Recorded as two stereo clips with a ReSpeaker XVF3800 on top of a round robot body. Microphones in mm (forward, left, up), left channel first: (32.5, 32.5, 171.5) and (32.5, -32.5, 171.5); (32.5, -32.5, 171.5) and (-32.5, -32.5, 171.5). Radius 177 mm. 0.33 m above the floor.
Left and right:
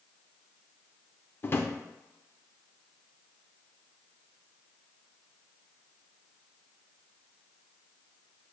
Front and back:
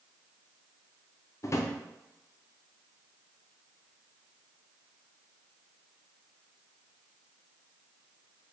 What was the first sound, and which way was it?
A drawer, 35° left.